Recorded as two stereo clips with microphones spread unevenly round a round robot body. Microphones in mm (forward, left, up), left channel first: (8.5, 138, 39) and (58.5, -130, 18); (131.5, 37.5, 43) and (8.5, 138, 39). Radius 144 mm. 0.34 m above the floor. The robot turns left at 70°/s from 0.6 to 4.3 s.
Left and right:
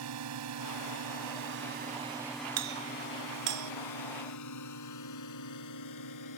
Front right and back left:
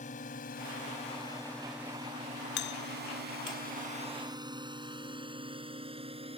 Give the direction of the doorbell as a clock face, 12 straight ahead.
2 o'clock.